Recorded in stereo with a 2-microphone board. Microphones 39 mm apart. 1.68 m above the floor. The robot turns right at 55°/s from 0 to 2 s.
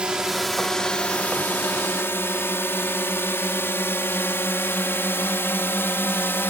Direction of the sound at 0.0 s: 25° right (ahead or behind).